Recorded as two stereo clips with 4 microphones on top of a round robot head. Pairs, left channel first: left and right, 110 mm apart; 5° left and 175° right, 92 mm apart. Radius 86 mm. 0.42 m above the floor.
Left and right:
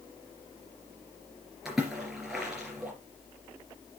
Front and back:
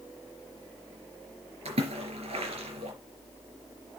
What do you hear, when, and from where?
1.6 s a splash: straight behind, 4 m